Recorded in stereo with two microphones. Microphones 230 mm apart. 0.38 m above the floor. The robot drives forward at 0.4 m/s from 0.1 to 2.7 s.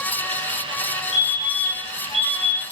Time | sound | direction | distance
1.1 | a fire alarm | 25° left (ahead or behind) | 8 m